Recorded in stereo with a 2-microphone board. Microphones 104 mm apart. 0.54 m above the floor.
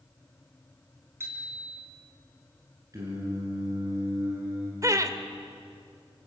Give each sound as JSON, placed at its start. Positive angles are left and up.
{"t": 1.2, "sound": "a bicycle bell", "side_deg": -25, "distance_m": 3.5}
{"t": 2.9, "sound": "singing", "side_deg": -35, "distance_m": 7.5}
{"t": 4.8, "sound": "laughter", "side_deg": -35, "distance_m": 1.5}